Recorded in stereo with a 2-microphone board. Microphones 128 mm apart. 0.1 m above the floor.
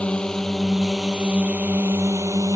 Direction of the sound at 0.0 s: 10° left (ahead or behind).